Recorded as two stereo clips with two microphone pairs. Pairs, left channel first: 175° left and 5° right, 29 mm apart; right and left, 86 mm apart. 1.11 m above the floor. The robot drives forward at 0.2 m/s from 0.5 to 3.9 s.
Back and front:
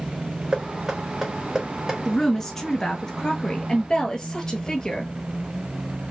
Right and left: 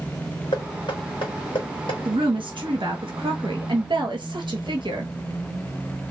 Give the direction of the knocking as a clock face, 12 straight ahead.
3 o'clock.